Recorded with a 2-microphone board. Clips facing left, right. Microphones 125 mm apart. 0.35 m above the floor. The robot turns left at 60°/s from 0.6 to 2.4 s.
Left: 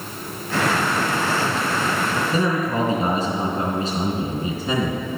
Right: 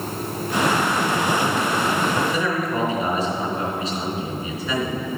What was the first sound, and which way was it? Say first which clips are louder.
A man speaking: left 2 dB; 25° left (ahead or behind).